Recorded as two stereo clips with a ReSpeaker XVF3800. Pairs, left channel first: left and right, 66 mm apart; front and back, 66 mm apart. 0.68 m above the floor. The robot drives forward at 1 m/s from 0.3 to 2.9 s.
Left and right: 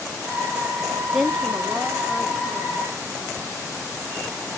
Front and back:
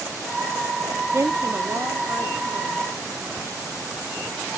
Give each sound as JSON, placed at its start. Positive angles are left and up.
{"t": 1.1, "sound": "a woman speaking", "azimuth_deg": 180, "distance_m": 0.7}